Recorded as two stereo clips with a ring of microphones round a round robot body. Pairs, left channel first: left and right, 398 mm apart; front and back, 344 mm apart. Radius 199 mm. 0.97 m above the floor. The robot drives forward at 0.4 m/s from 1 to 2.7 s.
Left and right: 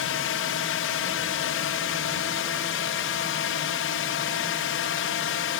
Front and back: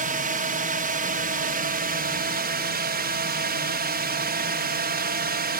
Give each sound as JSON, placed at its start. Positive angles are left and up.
{"t": 0.0, "sound": "a drone", "azimuth_deg": 130}